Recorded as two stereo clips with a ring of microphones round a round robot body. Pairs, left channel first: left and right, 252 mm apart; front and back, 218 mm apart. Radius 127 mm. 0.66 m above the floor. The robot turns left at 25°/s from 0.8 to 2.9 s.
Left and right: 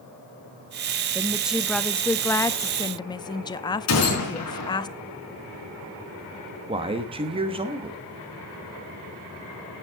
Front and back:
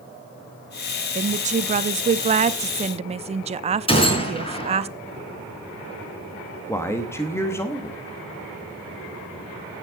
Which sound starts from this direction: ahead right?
A man speaking, at 6.7 s.